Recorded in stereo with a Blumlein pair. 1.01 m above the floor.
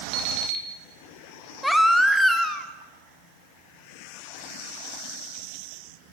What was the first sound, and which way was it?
An alarm clock, 35° right.